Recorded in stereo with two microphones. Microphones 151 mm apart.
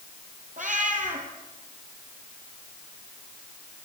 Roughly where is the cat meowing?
Right.